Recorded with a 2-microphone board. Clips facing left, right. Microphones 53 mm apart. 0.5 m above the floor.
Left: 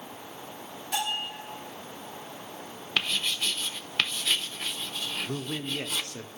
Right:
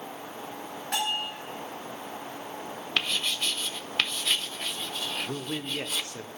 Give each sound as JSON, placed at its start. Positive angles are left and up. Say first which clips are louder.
{"t": 0.9, "sound": "a bell", "louder": "right 1 dB", "side_deg": -65, "distance_m": 7.5}
{"t": 3.0, "sound": "writing", "louder": "even", "side_deg": 0, "distance_m": 0.6}
{"t": 5.3, "sound": "a man speaking", "louder": "even", "side_deg": -10, "distance_m": 0.8}